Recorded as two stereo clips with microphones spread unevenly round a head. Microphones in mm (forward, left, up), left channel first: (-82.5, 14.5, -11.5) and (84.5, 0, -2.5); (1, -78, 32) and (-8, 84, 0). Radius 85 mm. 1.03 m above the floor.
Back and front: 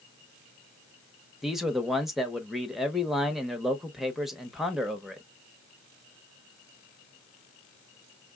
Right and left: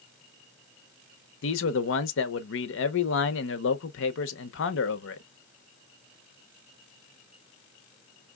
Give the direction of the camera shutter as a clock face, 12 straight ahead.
I don't hear a camera shutter.